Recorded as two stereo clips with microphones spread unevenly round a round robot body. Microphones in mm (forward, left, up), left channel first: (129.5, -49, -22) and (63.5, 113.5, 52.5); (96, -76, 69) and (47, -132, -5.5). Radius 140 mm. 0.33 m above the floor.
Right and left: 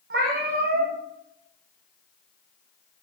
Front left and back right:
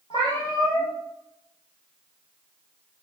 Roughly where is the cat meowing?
Left.